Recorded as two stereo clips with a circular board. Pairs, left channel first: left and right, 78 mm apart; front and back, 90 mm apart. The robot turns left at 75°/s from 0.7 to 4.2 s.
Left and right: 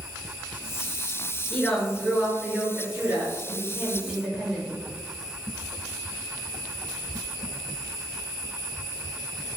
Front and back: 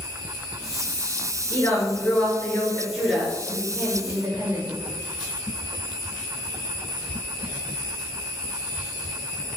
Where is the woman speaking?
15° left, 1.4 m; by 4.7 s 170° left, 1.4 m.